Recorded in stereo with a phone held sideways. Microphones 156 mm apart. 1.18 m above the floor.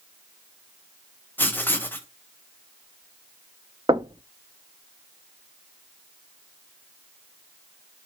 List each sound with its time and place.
1.4 s writing: 15° left (ahead or behind), 1.1 m
3.9 s knocking: 30° right (ahead or behind), 0.6 m